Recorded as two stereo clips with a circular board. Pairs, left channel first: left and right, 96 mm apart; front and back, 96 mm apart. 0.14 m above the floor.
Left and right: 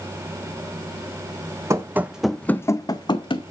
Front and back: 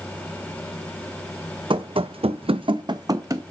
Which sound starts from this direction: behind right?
Running footsteps, at 1.7 s.